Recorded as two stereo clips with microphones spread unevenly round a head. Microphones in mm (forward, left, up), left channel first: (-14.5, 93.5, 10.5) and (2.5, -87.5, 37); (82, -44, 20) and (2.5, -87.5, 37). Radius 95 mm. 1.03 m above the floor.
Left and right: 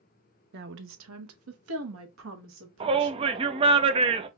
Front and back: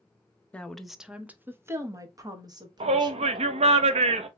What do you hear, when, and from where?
0.5 s a woman speaking: 45° right, 0.8 m; by 3.4 s 110° right, 1.8 m
2.8 s a shout: 150° right, 0.7 m